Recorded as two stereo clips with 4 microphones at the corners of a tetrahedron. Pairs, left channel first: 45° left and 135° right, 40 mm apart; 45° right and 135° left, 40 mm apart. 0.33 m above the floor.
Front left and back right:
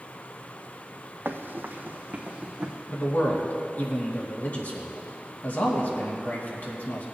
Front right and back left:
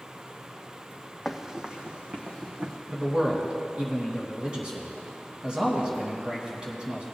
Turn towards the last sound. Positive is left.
turn(degrees=70)